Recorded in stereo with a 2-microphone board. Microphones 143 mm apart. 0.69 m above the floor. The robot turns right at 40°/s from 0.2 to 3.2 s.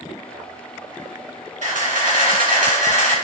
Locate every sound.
1.6 s a camera shutter: 115° right, 3.5 m; by 3.1 s 55° right, 3.5 m